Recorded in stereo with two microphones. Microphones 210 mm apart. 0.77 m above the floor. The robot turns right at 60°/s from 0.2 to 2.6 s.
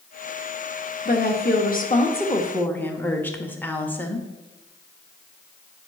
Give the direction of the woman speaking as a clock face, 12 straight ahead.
9 o'clock.